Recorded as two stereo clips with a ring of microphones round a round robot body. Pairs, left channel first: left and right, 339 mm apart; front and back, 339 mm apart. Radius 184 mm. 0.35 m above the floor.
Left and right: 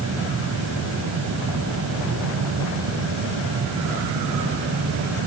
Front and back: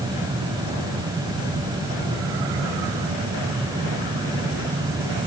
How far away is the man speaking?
No man speaking in this recording.